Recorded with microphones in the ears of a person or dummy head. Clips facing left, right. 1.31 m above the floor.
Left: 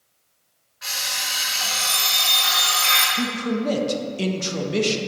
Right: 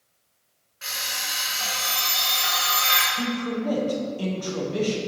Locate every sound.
0.8 s an alarm clock: 40° right (ahead or behind), 2 m
3.1 s a man speaking: 30° left (ahead or behind), 0.8 m